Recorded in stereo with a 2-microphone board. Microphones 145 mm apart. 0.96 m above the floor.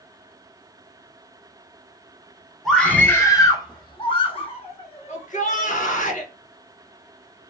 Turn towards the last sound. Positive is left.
turn(degrees=60)  # may be behind; listen again after turning